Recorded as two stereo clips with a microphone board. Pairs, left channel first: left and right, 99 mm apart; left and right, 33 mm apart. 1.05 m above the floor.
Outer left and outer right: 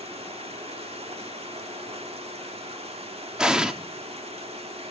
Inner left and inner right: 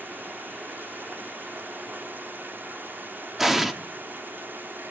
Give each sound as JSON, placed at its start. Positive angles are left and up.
{"t": 0.0, "sound": "running water", "side_deg": -90, "distance_m": 1.8}
{"t": 3.4, "sound": "an explosion", "side_deg": -5, "distance_m": 1.3}